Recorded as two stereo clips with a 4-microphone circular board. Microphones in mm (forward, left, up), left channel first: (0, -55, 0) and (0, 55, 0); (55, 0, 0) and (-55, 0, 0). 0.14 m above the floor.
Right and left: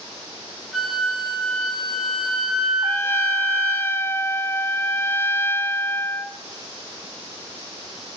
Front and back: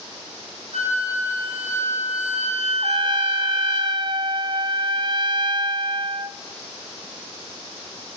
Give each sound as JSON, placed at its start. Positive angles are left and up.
{"t": 0.7, "sound": "a flute", "azimuth_deg": 180, "distance_m": 4.5}
{"t": 2.8, "sound": "a trumpet", "azimuth_deg": -155, "distance_m": 0.7}